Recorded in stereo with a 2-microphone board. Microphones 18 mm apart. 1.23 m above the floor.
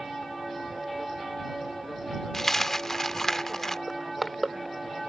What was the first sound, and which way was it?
A dropped coin, 25° left (ahead or behind).